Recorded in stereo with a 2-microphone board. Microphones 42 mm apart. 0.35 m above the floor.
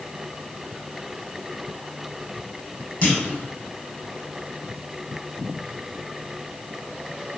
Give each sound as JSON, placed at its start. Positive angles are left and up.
{"t": 3.0, "sound": "a clunk", "side_deg": 35, "distance_m": 0.7}